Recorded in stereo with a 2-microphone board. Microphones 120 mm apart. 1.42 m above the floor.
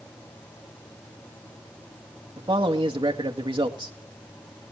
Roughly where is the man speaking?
Right.